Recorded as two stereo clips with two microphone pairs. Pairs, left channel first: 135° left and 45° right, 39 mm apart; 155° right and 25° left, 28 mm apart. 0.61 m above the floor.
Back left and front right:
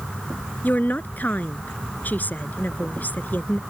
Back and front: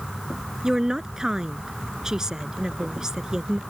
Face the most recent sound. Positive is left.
turn(degrees=95)